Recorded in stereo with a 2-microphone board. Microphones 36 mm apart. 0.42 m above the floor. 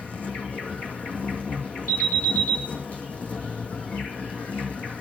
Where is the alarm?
50° left (ahead or behind), 4.5 m.